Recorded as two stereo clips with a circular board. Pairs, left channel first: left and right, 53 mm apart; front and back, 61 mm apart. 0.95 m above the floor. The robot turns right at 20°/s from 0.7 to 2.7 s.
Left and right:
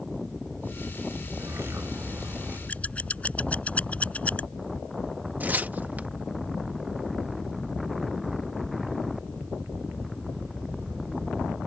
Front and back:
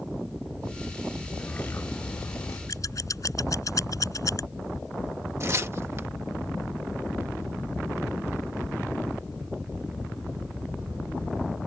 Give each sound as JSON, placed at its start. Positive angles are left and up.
{"t": 1.4, "sound": "a bird", "azimuth_deg": -60}
{"t": 2.7, "sound": "scissors", "azimuth_deg": 30}
{"t": 5.4, "sound": "tearing paper", "azimuth_deg": -140}